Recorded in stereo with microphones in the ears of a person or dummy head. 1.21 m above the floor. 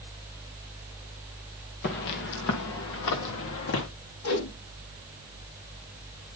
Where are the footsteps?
40° left (ahead or behind), 1.5 m; by 3.9 s 60° left (ahead or behind), 2.5 m.